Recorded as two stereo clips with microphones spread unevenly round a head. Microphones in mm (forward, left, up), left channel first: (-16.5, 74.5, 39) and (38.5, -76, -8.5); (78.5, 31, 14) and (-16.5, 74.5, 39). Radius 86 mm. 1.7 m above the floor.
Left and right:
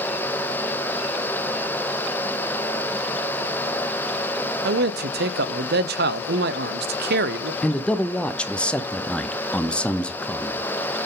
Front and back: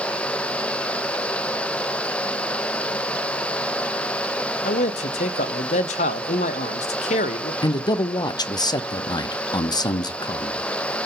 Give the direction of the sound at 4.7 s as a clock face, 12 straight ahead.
1 o'clock.